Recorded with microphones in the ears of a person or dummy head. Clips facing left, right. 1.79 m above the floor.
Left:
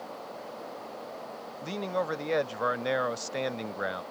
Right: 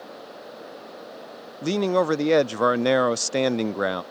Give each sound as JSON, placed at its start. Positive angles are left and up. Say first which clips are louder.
{"t": 1.6, "sound": "a man speaking", "louder": "right 10 dB", "side_deg": -70}